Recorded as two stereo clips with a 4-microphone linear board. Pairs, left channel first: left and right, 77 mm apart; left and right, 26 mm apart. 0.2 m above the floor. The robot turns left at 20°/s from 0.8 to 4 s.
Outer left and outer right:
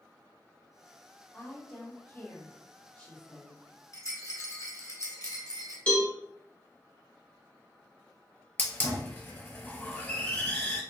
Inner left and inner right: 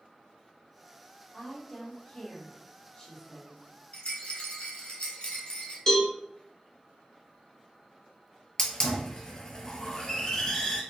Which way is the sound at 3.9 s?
50° left (ahead or behind).